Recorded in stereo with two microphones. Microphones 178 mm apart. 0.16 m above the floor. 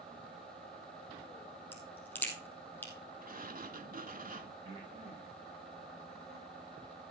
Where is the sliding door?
55° right (ahead or behind), 0.6 m.